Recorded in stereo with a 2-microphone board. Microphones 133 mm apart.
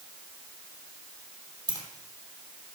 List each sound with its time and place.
1.7 s keys jangling: 25° right (ahead or behind), 3 m